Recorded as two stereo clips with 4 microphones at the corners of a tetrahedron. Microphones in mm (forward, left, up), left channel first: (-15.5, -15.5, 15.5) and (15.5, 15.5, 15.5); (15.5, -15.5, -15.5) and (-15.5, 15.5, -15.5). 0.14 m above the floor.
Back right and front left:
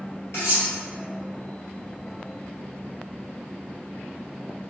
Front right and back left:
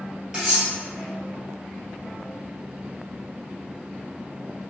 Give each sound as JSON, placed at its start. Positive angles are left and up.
{"t": 0.3, "sound": "cutlery clinking", "azimuth_deg": -150, "distance_m": 1.7}